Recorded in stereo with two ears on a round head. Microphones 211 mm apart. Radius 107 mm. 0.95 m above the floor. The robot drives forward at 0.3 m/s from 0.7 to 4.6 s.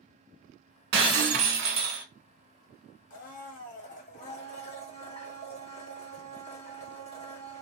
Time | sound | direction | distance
0.9 | breaking glass | 45° right (ahead or behind) | 1.1 m
3.1 | a blender | 40° left (ahead or behind) | 1.1 m